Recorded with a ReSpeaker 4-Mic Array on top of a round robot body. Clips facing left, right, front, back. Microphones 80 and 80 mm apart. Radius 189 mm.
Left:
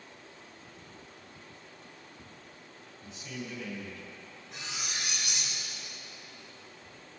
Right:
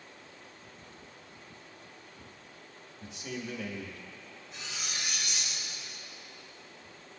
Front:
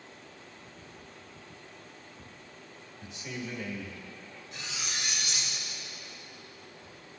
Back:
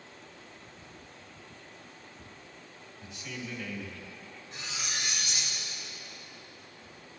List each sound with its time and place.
3.0 s a man speaking: 65° right, 1.6 m
4.5 s cutlery clinking: 125° left, 1.7 m